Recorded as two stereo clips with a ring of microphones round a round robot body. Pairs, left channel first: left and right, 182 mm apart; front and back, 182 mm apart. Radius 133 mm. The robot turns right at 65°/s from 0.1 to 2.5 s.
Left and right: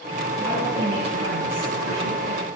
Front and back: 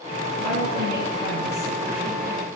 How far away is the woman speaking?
About 3.5 m.